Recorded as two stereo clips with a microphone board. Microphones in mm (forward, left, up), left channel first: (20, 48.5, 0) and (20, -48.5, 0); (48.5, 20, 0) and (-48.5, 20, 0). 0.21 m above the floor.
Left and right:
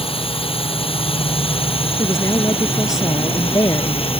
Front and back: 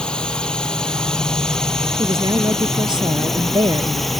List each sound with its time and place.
0.0 s a drone: 80° left; by 4.2 s 90° left
2.0 s a woman speaking: 140° left